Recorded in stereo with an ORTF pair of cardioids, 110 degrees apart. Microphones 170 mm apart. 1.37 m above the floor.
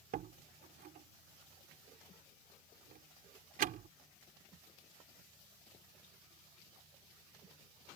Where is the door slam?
60° right.